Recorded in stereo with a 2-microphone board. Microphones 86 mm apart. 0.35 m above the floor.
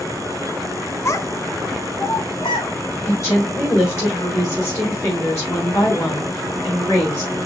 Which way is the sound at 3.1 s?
30° left (ahead or behind).